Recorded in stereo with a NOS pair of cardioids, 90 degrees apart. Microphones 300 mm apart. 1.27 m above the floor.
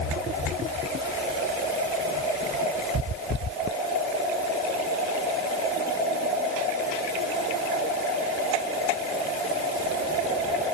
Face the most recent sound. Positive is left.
No sound to turn to.